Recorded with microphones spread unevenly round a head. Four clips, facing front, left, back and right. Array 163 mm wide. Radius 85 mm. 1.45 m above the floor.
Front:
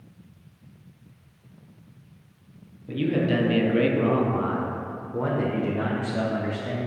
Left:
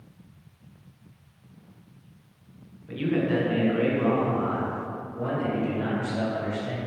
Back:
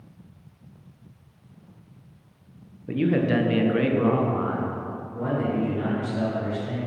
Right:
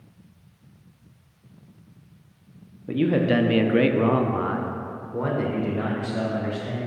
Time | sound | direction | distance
2.9 | a man speaking | 125° right | 0.9 m